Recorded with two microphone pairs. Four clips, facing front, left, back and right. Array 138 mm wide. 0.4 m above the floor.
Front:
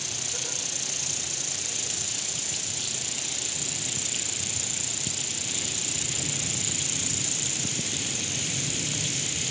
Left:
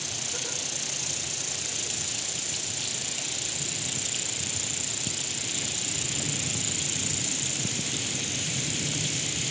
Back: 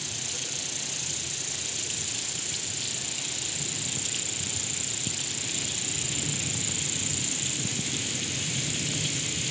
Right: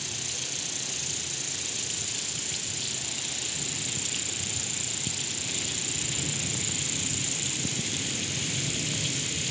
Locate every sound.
0.0 s an insect: 55° left, 0.7 m